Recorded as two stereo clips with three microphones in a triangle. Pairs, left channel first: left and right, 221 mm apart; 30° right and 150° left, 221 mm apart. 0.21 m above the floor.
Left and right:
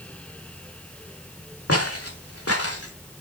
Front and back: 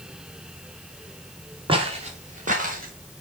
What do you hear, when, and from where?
1.7 s footsteps: 85° left, 2.5 m; by 2.9 s 100° left, 3 m